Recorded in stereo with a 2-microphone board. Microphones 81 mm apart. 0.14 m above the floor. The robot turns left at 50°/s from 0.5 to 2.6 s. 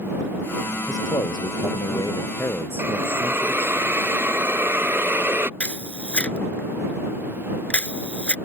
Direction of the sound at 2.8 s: 25° right (ahead or behind).